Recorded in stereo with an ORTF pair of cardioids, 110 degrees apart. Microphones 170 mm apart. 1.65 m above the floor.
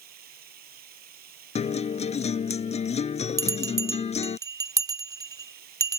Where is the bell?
20° right.